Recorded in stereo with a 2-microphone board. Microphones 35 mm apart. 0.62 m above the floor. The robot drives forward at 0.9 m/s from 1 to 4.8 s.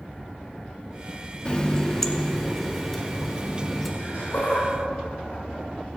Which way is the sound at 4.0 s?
80° left.